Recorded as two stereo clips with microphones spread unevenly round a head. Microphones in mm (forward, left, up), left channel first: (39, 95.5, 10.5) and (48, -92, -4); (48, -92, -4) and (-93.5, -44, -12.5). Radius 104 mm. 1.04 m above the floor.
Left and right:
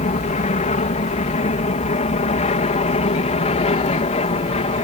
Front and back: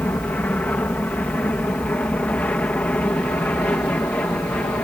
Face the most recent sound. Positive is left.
turn(degrees=60)